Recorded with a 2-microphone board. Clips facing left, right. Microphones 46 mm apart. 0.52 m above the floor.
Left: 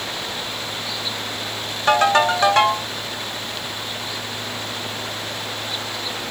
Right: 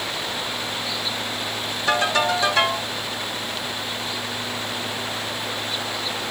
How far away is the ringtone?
About 2.5 m.